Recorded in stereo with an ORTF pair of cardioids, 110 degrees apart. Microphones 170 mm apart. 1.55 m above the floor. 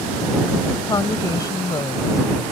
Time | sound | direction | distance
0.8 | a woman speaking | 20° left | ?